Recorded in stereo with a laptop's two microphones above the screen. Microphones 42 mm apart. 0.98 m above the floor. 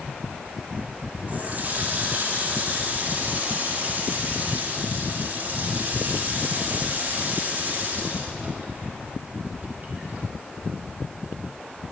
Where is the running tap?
40° right (ahead or behind), 1.2 m.